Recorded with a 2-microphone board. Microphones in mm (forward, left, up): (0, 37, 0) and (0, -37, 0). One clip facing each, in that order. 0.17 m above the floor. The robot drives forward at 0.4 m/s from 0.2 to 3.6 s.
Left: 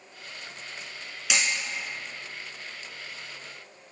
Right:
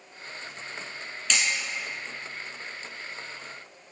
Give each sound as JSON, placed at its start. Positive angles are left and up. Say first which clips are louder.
{"t": 1.3, "sound": "hammering", "louder": "even", "side_deg": 10, "distance_m": 2.0}